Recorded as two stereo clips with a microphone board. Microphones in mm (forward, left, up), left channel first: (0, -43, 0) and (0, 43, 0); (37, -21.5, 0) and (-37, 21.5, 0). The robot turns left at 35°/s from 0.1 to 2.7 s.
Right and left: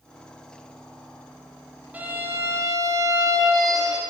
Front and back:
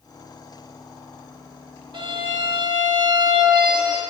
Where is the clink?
I don't hear a clink.